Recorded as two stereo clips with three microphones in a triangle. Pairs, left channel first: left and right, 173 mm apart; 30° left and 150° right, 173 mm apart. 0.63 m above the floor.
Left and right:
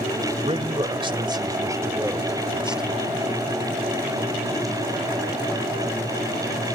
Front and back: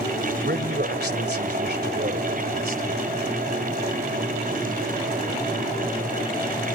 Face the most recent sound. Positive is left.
turn(degrees=180)